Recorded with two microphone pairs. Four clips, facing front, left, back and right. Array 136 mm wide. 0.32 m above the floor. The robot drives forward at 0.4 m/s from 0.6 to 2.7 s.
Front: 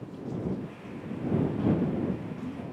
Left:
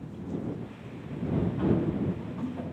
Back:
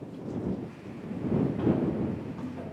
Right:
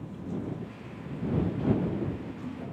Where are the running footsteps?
120° left, 9.5 m; by 2.6 s 125° left, 9 m.